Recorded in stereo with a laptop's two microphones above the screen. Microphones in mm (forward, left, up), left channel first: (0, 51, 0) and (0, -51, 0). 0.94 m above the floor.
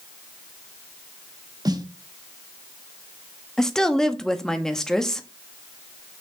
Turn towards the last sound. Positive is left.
turn(degrees=5)  # may be behind; listen again after turning